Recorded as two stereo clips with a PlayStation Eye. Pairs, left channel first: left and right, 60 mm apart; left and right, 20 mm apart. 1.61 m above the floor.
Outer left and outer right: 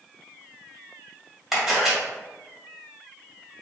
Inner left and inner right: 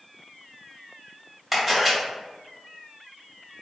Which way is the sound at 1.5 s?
5° right (ahead or behind).